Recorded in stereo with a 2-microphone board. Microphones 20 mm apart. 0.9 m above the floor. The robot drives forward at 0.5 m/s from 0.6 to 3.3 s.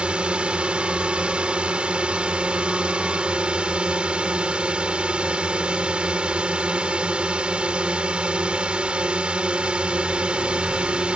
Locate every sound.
0.0 s a drone: 70° right (ahead or behind); by 11.2 s 65° right (ahead or behind)